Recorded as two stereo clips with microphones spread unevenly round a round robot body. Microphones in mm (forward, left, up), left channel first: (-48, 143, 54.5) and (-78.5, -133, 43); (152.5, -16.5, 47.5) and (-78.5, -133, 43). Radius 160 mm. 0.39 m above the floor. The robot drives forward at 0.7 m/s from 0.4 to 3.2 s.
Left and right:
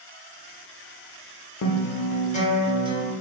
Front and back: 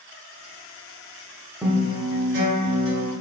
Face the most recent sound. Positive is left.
turn(degrees=160)